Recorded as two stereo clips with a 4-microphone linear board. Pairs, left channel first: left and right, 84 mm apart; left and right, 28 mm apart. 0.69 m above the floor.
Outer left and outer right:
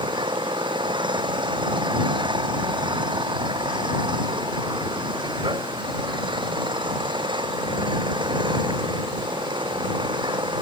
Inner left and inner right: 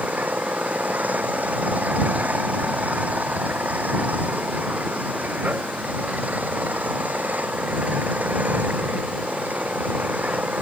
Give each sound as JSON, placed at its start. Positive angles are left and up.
{"t": 0.0, "sound": "an engine running", "side_deg": -65}